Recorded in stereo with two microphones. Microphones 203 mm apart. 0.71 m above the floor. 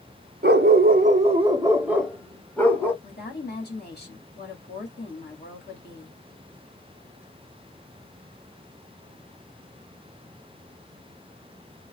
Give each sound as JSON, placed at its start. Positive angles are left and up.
{"t": 0.4, "sound": "a dog barking", "side_deg": -55, "distance_m": 0.6}
{"t": 3.0, "sound": "a woman speaking", "side_deg": 55, "distance_m": 1.4}